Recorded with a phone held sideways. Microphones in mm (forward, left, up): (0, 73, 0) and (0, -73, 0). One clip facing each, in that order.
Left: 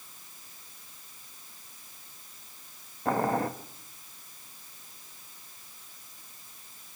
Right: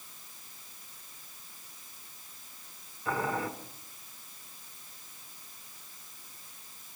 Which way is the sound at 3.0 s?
50° left (ahead or behind).